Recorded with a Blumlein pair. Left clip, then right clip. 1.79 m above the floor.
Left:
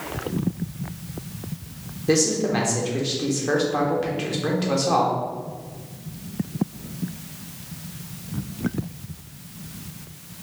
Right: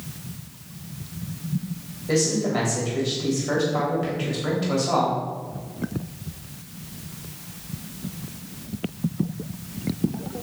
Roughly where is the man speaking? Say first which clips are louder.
Left 2 dB; ahead left.